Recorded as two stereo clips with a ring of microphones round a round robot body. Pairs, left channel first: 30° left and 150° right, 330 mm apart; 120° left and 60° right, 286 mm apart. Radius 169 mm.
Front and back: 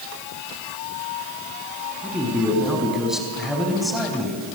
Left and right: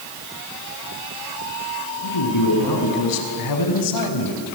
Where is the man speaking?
120° left, 6.5 m.